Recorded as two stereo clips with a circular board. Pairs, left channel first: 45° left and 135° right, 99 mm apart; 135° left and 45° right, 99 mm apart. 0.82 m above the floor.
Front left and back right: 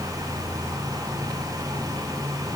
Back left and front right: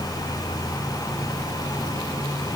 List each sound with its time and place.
Only background noise.